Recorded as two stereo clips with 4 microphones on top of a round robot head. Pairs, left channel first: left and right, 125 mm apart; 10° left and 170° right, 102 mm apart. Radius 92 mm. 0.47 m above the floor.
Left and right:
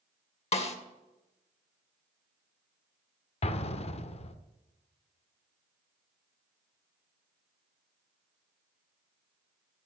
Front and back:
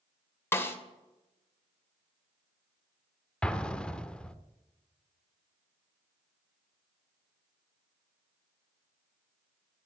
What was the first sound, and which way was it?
A snare drum, 75° left.